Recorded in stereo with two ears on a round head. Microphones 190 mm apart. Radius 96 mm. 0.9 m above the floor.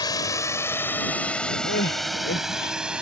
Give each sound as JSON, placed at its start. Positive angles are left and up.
{"t": 0.0, "sound": "a drone", "side_deg": 20}
{"t": 1.6, "sound": "crying", "side_deg": 50}